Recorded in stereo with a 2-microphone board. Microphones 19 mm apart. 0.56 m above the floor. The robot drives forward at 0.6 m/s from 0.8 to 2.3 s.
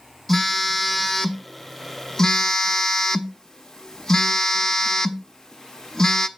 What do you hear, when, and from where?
0.3 s a phone buzzing: 15° left (ahead or behind), 1.0 m; by 6.3 s 35° left (ahead or behind), 0.5 m